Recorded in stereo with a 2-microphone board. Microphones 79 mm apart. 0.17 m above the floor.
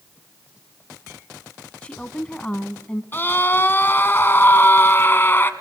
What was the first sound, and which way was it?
A woman speaking, 15° left (ahead or behind).